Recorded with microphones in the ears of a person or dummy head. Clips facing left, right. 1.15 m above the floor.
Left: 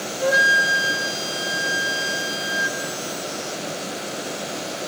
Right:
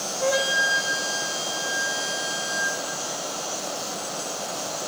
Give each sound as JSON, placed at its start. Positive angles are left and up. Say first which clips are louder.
{"t": 0.2, "sound": "a flute", "louder": "left 2 dB", "side_deg": 15, "distance_m": 3.0}